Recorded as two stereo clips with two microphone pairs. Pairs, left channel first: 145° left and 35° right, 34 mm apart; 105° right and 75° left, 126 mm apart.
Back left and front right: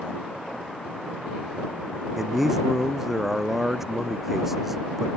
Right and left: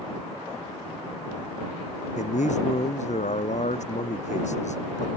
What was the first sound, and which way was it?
A man speaking, 115° right.